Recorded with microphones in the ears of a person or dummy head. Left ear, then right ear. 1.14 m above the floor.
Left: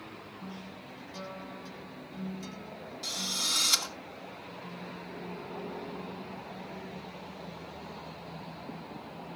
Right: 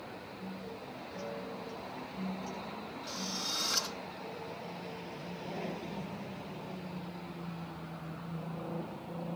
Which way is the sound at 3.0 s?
80° left.